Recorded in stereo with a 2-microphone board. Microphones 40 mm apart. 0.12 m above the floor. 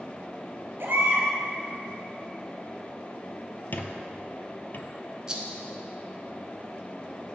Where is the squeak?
50° left (ahead or behind), 0.6 m.